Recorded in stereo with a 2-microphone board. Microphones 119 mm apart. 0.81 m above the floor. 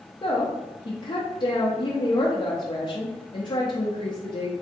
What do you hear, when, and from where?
0.2 s a woman speaking: 40° left (ahead or behind), 0.5 m